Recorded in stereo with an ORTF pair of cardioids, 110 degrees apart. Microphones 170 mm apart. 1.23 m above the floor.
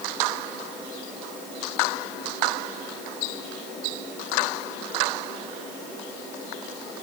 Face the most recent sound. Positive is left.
No sound to turn to.